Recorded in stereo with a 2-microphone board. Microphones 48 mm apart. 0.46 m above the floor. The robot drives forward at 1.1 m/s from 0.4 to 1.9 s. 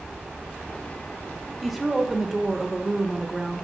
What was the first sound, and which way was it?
A woman speaking, centre (ahead or behind).